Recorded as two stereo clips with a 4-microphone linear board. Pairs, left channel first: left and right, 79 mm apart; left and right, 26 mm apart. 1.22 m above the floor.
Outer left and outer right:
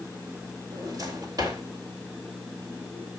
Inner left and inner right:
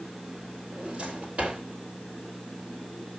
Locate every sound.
0.7 s a drawer: 50° right (ahead or behind), 2.0 m